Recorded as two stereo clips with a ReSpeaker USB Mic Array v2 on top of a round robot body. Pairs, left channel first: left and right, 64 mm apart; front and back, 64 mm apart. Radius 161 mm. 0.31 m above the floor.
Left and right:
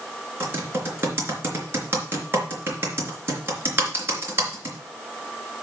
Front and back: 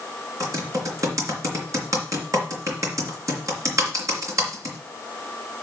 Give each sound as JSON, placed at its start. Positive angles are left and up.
{"t": 0.4, "sound": "typing on a keyboard", "azimuth_deg": -145, "distance_m": 3.5}